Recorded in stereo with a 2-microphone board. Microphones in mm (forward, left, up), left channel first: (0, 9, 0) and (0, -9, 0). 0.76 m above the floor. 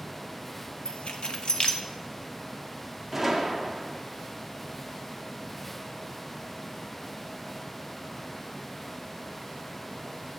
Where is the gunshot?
5° right (ahead or behind), 0.8 m.